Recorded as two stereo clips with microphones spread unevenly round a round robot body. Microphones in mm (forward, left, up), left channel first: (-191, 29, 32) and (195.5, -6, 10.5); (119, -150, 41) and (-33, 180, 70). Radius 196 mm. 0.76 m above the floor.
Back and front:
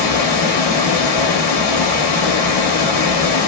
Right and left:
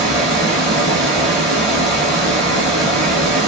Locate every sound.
0.0 s running water: 155° right, 0.9 m